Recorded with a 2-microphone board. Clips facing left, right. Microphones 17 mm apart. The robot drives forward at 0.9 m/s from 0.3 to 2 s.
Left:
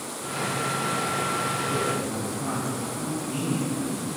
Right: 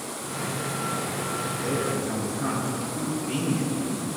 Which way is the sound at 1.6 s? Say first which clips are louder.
Left 1 dB; 80° right.